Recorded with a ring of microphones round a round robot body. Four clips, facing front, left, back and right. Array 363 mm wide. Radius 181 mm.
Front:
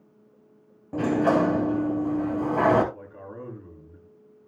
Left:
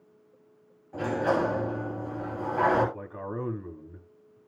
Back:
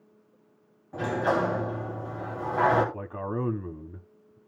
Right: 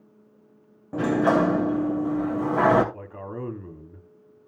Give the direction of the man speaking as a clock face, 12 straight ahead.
6 o'clock.